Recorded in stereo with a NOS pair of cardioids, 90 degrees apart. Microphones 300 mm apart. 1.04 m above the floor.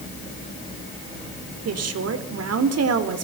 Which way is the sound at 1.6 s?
55° right.